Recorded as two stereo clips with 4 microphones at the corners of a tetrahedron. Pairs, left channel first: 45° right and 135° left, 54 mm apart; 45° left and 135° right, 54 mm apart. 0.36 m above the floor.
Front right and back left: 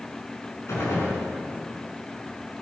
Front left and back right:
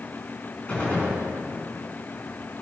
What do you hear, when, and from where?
0.7 s a gunshot: 20° right, 4.5 m